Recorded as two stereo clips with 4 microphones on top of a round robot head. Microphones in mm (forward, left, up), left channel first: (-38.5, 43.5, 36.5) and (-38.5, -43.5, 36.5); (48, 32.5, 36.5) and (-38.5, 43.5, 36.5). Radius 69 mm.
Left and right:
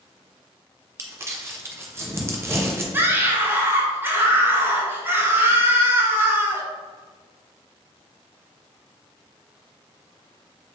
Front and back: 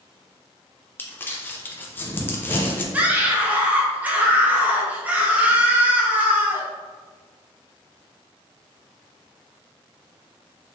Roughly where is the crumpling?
Ahead right.